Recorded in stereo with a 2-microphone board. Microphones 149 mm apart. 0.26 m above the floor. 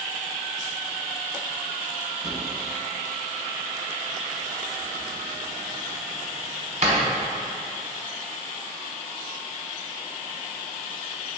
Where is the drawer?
55° right (ahead or behind), 0.9 m.